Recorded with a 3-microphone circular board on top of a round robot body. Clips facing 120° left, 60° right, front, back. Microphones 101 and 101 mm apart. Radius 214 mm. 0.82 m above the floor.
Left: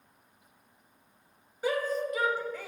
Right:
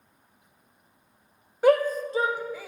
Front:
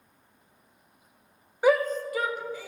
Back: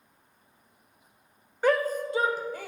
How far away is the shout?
About 1.0 m.